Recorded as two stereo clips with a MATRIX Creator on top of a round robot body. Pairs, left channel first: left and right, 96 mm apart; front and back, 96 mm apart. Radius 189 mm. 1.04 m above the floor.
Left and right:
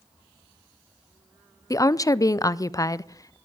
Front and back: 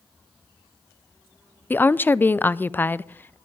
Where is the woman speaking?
60° left, 0.5 m.